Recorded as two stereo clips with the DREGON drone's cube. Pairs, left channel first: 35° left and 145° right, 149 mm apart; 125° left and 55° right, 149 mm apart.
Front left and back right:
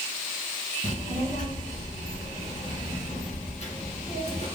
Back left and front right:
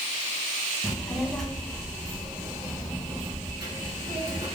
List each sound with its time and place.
0.8 s a child speaking: 50° left, 1.2 m; by 4.5 s 5° right, 2.5 m